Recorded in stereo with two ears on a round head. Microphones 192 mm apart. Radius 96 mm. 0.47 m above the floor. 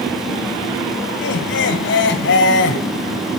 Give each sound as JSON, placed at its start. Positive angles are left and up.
{"t": 1.2, "sound": "laughter", "side_deg": 60, "distance_m": 1.8}